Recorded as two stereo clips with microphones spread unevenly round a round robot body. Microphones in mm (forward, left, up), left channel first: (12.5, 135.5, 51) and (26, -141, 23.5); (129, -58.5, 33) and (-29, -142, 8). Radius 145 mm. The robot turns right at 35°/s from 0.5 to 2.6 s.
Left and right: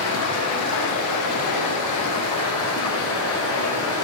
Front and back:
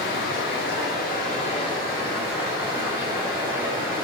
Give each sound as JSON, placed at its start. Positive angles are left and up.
{"t": 0.0, "sound": "running water", "azimuth_deg": 60, "distance_m": 0.7}